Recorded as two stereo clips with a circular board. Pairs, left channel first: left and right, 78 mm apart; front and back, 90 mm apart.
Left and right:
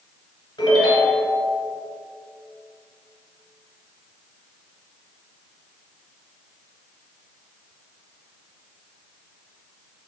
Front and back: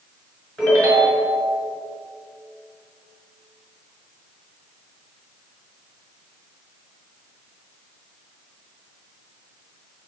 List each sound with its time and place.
0.6 s a ringtone: 80° left, 1.5 m